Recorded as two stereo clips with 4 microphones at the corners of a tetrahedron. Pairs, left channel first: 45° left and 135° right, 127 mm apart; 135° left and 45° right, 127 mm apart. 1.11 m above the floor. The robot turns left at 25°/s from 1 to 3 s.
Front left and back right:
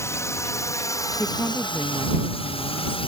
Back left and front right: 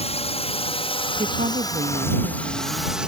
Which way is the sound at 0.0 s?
110° left.